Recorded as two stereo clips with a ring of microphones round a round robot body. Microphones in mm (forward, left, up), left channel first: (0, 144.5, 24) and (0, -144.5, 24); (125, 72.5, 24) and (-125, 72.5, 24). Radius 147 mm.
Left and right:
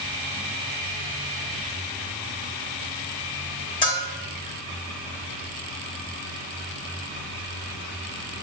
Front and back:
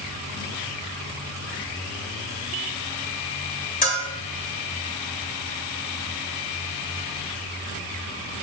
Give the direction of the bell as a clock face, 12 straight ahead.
11 o'clock.